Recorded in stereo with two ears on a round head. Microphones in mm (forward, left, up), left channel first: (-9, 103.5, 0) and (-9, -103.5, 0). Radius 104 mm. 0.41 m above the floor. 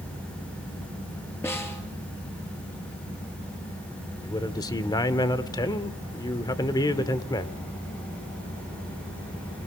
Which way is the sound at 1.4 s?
10° left (ahead or behind).